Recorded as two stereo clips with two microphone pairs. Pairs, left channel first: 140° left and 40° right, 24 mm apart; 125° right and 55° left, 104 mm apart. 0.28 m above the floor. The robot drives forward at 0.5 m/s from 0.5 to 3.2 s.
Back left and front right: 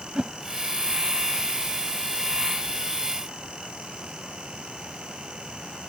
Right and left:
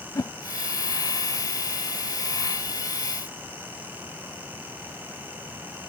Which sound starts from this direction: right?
A whoosh, at 0.1 s.